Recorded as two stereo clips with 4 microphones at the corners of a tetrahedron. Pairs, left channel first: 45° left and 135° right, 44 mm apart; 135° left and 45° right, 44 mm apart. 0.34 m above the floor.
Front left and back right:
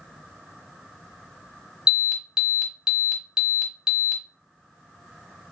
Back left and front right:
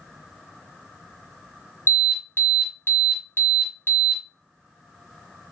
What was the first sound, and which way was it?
An alarm, 150° left.